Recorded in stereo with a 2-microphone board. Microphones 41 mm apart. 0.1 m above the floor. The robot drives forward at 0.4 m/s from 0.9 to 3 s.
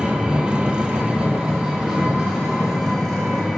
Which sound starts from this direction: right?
An engine running, at 0.0 s.